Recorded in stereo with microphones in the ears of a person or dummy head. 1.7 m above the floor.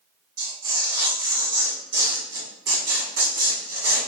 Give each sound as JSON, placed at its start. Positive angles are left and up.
{"t": 0.4, "sound": "tearing paper", "side_deg": -55, "distance_m": 1.6}